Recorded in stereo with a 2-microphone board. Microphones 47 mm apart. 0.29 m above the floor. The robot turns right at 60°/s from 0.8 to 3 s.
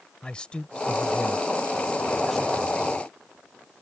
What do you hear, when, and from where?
0.2 s a man speaking: 20° left (ahead or behind); by 2.8 s 10° right (ahead or behind)